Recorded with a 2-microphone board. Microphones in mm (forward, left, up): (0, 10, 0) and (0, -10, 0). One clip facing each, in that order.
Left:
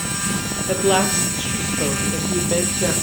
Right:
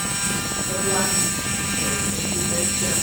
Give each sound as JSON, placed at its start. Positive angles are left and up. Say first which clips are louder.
{"t": 0.7, "sound": "a woman speaking", "louder": "left 6 dB", "side_deg": 70, "distance_m": 3.5}